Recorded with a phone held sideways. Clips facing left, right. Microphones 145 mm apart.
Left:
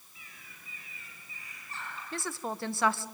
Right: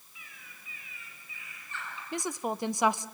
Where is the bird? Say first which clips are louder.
Right 1 dB; 35° left (ahead or behind), 7 m.